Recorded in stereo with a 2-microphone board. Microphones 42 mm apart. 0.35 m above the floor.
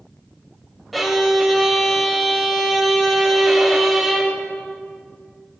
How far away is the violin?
About 0.6 m.